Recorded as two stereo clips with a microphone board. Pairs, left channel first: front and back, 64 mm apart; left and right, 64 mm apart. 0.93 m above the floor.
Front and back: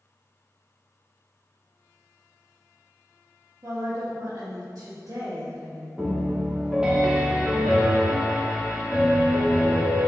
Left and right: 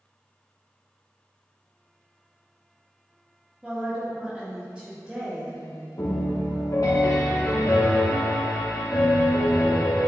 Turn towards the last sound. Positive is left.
turn(degrees=105)